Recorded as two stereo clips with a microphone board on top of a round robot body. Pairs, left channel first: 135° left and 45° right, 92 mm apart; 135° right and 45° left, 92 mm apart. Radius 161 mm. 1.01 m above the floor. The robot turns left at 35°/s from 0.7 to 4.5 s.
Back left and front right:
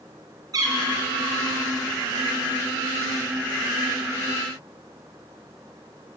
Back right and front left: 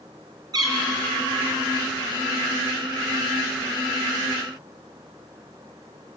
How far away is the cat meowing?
About 3 m.